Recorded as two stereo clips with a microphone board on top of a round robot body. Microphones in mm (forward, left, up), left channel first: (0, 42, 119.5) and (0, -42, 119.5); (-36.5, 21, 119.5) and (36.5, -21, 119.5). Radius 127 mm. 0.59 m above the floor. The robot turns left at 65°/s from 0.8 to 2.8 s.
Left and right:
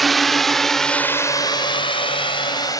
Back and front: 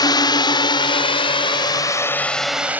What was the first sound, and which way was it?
A drone, straight behind.